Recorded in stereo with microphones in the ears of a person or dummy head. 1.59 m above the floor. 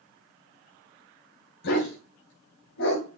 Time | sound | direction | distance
1.6 | a dog barking | 60° left (ahead or behind) | 2.5 m